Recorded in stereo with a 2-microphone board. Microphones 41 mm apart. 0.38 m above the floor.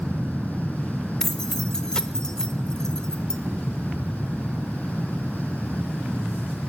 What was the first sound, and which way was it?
Keys jangling, 20° left (ahead or behind).